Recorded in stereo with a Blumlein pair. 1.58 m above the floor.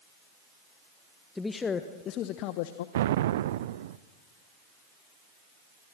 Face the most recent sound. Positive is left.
turn(degrees=-55)